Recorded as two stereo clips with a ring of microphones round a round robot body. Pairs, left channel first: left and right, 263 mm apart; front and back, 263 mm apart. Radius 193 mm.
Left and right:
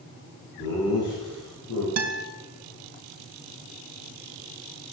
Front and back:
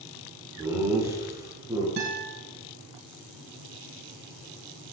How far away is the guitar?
About 2.5 m.